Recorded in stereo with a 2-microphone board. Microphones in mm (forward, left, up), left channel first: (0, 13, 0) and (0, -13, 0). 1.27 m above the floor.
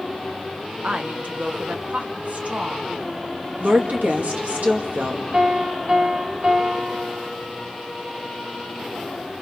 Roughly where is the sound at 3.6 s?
Right.